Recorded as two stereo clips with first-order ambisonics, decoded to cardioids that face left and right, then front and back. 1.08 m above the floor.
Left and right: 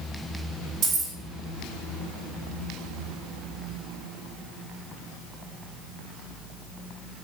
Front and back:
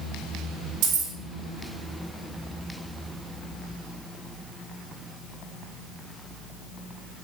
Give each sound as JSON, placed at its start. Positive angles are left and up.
{"t": 0.8, "sound": "keys jangling", "azimuth_deg": -150, "distance_m": 0.6}